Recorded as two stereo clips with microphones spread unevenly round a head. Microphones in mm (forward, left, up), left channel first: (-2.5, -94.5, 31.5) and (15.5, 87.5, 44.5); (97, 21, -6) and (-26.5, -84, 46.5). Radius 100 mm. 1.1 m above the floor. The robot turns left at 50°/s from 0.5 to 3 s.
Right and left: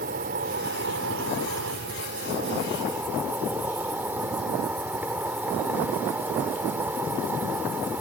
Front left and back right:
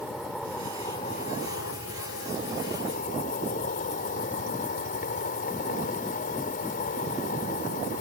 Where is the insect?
130° left; by 8.0 s 5° left.